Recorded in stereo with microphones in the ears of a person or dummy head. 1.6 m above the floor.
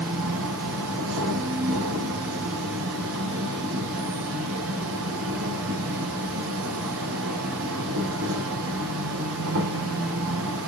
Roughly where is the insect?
Right.